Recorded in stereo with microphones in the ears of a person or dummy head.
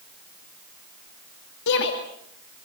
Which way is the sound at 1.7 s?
65° left (ahead or behind).